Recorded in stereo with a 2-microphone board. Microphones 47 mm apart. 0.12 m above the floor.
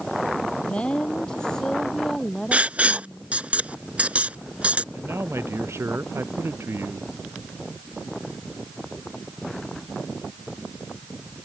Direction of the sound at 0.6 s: 25° left (ahead or behind).